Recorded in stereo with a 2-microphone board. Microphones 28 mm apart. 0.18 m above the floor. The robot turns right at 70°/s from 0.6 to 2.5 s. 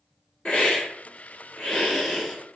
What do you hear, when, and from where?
0.5 s a hiss: 40° left (ahead or behind), 1.0 m; by 2.6 s 5° right (ahead or behind), 1.0 m